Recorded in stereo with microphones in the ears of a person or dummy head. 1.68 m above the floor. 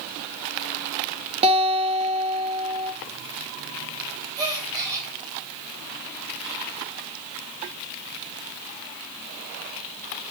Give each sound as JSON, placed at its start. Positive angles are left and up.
{"t": 1.4, "sound": "a guitar", "side_deg": -35, "distance_m": 1.9}
{"t": 4.4, "sound": "a gasp", "side_deg": -20, "distance_m": 3.0}